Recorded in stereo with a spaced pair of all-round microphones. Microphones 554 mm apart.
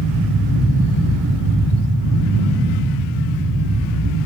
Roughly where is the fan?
Right.